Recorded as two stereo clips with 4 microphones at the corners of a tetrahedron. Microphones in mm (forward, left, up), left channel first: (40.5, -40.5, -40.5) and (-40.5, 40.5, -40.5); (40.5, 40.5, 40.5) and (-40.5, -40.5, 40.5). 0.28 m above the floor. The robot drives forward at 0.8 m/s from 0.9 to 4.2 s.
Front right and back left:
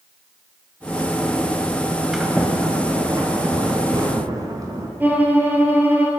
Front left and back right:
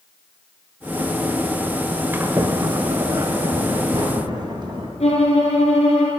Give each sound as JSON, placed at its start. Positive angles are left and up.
{"t": 2.1, "sound": "a sliding door", "azimuth_deg": -145, "distance_m": 1.0}
{"t": 5.0, "sound": "a violin", "azimuth_deg": 65, "distance_m": 2.5}